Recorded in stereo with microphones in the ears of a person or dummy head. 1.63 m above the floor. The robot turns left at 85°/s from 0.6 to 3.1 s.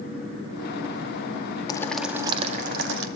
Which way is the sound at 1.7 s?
20° left.